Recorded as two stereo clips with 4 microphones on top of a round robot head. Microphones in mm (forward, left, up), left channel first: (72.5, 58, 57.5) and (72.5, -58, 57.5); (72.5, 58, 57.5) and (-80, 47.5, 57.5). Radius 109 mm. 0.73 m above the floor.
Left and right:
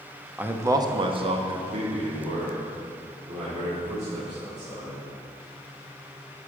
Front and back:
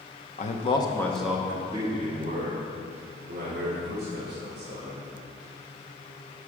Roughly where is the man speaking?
Ahead.